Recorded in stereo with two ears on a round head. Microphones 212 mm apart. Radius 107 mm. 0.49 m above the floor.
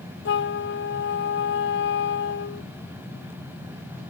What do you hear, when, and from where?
0.2 s a flute: 50° left (ahead or behind)